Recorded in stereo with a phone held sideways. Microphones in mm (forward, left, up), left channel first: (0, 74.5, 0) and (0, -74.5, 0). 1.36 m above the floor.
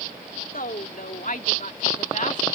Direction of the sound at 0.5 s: 70° left (ahead or behind).